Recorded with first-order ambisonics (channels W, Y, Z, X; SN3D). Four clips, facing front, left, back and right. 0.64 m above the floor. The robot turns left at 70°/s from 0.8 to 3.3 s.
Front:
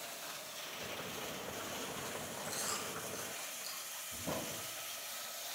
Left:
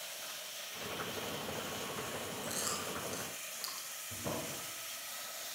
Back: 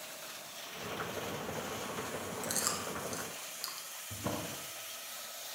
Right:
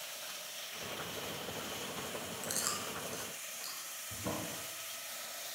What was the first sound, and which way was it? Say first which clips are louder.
Chewing: right 2 dB, back 4 dB; 140° right.